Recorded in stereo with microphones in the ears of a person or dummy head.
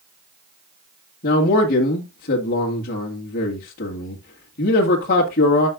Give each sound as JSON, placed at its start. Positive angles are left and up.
{"t": 1.2, "sound": "a man speaking", "side_deg": 45, "distance_m": 2.0}